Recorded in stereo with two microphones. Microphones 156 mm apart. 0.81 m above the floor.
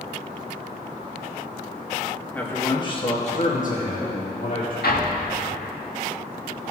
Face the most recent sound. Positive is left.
turn(degrees=80)